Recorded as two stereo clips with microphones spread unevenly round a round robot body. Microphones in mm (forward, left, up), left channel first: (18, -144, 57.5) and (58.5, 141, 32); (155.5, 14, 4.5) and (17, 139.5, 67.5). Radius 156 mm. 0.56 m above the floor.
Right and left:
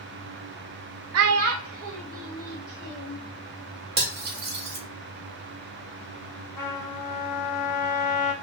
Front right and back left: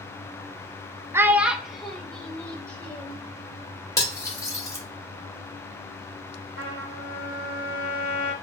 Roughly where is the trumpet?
Behind.